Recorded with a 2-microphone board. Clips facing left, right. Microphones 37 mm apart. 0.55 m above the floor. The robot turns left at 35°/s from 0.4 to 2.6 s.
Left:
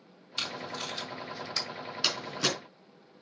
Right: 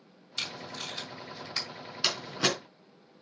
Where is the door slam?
5° right (ahead or behind), 4 m; by 2.5 s 25° right (ahead or behind), 4 m.